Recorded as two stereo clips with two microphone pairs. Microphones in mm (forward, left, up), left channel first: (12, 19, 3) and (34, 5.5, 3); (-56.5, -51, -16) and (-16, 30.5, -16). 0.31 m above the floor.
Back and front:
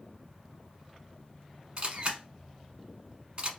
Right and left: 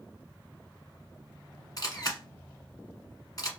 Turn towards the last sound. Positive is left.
turn(degrees=-75)